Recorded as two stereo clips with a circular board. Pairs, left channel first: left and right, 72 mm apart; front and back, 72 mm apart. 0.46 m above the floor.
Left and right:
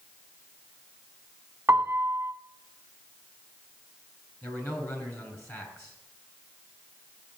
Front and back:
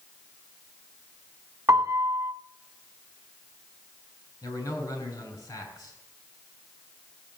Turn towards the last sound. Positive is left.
turn(degrees=40)